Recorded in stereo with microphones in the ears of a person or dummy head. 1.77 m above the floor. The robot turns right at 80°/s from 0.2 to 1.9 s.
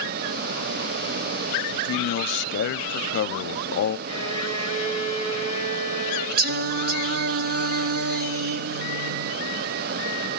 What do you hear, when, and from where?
1.7 s a man speaking: 75° left (ahead or behind), 0.6 m; by 4.0 s 60° left (ahead or behind), 0.6 m
4.1 s a violin: 45° right (ahead or behind), 6.5 m
6.4 s singing: 55° right (ahead or behind), 0.9 m